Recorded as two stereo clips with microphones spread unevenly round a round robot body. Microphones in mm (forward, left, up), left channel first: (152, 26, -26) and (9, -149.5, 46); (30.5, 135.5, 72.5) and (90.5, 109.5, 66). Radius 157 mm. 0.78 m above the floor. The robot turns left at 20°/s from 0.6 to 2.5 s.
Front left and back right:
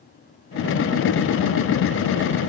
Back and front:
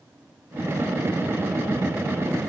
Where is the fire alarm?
No fire alarm in this recording.